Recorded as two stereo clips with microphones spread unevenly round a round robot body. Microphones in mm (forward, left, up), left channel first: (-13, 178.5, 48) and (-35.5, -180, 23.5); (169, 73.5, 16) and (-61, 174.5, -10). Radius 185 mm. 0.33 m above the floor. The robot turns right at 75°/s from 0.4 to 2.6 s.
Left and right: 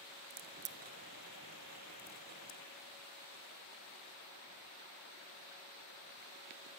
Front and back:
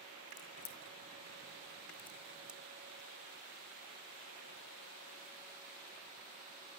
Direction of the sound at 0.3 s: 80° right.